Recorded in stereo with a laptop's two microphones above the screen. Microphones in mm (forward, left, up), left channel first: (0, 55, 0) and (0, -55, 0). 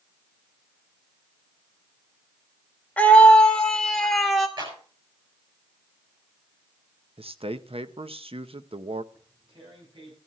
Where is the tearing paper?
50° right (ahead or behind), 9.5 m.